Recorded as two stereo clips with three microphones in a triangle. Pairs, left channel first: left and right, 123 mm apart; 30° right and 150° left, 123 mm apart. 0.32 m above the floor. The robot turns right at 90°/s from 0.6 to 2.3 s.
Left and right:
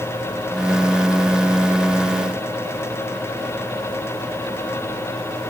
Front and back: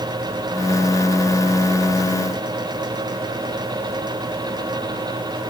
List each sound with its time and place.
Only background noise.